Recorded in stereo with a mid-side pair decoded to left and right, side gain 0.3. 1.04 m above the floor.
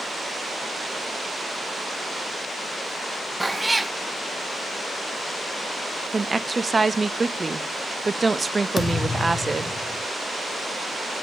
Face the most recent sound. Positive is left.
turn(degrees=50)